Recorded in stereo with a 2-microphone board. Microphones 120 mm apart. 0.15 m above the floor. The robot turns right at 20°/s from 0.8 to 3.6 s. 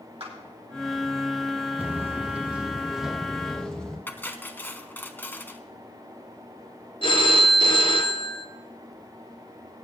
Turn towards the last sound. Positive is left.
turn(degrees=45)  # may be behind; listen again after turning